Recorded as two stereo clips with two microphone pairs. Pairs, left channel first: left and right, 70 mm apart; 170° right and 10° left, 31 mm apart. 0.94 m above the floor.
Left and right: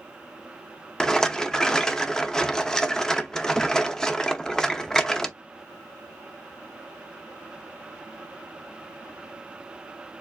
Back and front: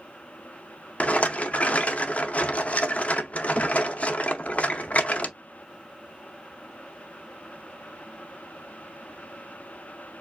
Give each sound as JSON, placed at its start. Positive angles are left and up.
{"t": 1.0, "sound": "a rattle", "azimuth_deg": 170, "distance_m": 0.6}